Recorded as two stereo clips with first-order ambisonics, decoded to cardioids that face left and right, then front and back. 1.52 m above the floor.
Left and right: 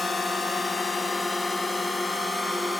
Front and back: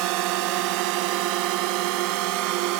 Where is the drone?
165° left; by 2.8 s 175° left.